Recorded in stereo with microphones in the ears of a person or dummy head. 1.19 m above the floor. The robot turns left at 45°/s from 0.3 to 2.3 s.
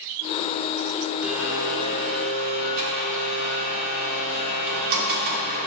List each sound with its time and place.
1.2 s a blender: straight ahead, 2.5 m; by 5.7 s 50° right, 2.5 m